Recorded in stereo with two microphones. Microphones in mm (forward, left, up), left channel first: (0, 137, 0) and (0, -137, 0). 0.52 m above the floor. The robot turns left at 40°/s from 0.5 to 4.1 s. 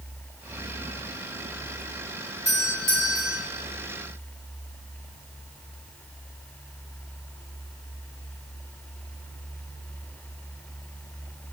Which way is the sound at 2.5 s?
45° right.